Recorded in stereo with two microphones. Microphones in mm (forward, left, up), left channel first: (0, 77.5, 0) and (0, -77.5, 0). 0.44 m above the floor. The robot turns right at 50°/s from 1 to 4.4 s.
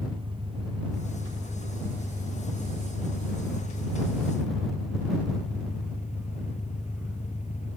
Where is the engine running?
35° right; by 7.8 s 135° left.